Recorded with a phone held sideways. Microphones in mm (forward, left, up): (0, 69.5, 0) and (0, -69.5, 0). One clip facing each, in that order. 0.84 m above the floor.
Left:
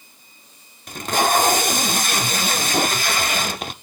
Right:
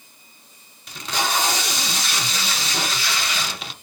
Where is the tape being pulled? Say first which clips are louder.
Left 6 dB; 50° left (ahead or behind), 0.5 m.